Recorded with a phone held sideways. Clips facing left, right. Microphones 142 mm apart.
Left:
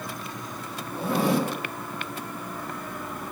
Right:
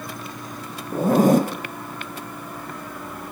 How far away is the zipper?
About 0.5 m.